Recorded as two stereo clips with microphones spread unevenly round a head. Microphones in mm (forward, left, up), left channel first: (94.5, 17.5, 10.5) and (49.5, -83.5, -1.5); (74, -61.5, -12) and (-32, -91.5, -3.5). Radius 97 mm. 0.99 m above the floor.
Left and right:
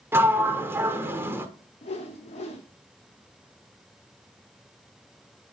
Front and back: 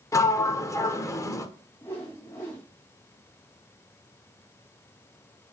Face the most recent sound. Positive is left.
turn(degrees=85)